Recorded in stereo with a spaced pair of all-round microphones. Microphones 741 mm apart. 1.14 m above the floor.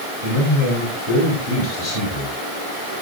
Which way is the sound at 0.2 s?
75° left (ahead or behind).